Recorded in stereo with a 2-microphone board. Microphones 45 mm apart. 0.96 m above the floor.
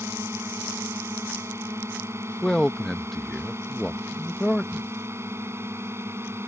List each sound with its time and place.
0.0 s a drone: 75° right (ahead or behind); by 6.5 s 65° right (ahead or behind)
2.4 s a man speaking: 10° left (ahead or behind)